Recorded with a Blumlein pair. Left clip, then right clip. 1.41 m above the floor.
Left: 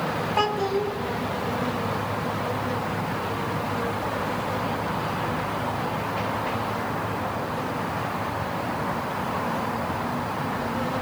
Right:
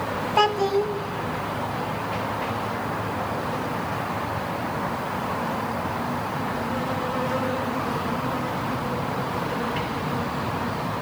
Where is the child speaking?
10° right, 0.8 m.